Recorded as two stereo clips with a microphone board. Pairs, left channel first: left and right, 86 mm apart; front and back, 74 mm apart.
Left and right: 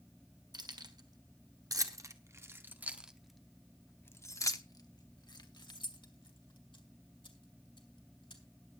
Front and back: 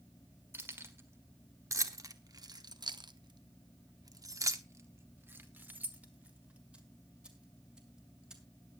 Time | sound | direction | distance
0.5 | keys jangling | 120° right | 1.7 m